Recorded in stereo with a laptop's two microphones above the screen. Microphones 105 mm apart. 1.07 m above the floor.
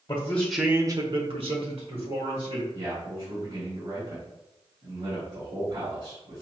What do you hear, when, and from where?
0.1 s a man speaking: 30° left (ahead or behind), 0.9 m; by 2.6 s 75° right (ahead or behind), 2.5 m
2.7 s a man speaking: 60° right (ahead or behind), 2 m